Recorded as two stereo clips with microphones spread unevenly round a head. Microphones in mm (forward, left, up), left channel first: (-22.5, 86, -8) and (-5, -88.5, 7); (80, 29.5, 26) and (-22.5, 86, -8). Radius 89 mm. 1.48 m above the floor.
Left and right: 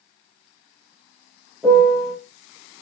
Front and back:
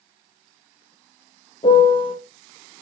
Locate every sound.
1.6 s a piano: straight ahead, 0.9 m